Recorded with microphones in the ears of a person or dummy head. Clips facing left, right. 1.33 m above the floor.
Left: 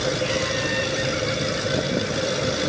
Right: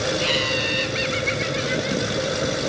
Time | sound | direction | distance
0.2 | laughter | 60° right (ahead or behind) | 2 m